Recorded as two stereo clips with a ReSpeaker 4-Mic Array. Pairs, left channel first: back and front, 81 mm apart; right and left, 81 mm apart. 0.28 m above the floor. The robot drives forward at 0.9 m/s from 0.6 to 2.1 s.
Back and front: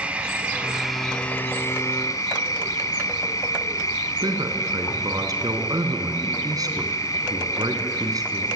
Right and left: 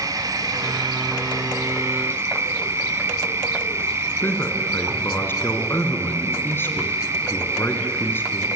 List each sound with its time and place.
0.0 s an insect: 70° left, 1.0 m; by 8.6 s 140° left, 1.4 m
4.2 s a man speaking: 30° right, 3 m